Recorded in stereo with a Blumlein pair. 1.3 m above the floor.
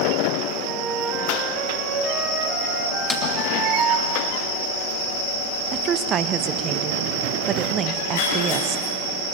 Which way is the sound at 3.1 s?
15° left.